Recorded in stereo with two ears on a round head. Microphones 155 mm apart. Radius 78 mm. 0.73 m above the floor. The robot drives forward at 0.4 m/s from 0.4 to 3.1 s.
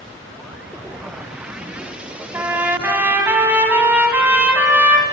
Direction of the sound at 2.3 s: 10° right (ahead or behind).